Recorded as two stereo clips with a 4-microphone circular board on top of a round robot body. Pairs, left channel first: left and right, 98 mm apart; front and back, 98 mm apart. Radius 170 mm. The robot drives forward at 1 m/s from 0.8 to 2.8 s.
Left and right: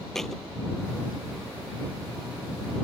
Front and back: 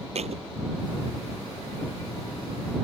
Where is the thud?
175° left.